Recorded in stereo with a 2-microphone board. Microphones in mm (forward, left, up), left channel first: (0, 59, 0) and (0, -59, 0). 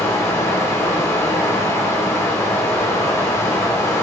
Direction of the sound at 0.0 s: 20° left (ahead or behind).